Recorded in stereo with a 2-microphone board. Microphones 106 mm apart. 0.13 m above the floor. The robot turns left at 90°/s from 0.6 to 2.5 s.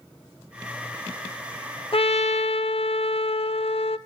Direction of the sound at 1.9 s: 120° left.